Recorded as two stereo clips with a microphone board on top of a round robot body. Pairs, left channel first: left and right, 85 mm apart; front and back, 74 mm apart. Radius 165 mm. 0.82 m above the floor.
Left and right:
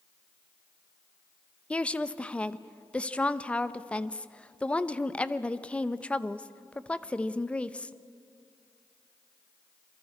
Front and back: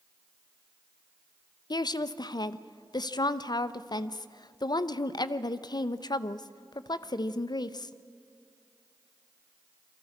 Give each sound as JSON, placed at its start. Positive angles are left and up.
{"t": 1.7, "sound": "a woman speaking", "azimuth_deg": 15, "distance_m": 0.8}